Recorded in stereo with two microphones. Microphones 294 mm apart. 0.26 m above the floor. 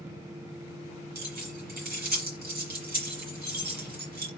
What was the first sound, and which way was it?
Keys jangling, 30° right (ahead or behind).